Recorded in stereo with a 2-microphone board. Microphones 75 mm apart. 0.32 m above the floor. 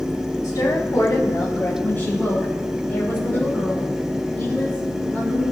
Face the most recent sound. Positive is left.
turn(degrees=25)  # may be behind; listen again after turning